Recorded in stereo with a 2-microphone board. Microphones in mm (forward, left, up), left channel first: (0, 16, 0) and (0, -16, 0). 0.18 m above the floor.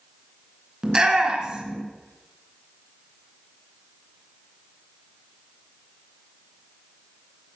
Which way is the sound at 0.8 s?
25° right (ahead or behind).